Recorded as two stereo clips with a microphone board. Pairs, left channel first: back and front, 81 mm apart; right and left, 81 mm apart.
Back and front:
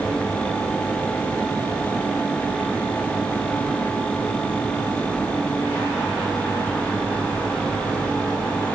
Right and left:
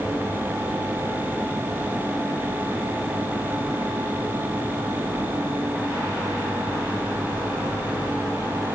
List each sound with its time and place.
Only background noise.